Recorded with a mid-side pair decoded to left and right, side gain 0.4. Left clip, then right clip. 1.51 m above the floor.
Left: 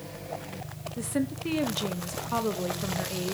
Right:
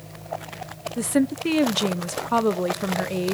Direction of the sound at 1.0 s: 60° right.